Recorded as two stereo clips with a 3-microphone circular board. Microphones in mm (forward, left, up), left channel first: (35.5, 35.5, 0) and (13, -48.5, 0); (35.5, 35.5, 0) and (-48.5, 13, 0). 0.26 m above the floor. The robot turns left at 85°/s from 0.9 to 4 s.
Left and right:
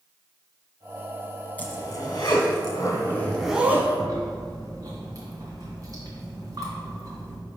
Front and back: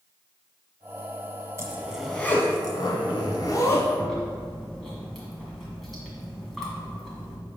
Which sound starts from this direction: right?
Chewing, at 4.0 s.